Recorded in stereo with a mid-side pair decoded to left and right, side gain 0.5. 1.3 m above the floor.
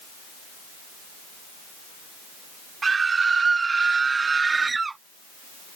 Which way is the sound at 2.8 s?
35° right.